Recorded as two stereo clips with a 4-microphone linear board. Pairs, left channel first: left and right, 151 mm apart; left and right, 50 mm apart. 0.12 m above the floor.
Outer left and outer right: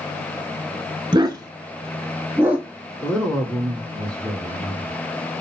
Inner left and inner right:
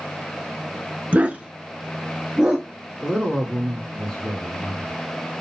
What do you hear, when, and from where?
1.1 s a dog barking: 30° right (ahead or behind), 0.6 m; by 2.7 s 10° right (ahead or behind), 1.5 m
3.0 s a woman speaking: 10° left (ahead or behind), 1.5 m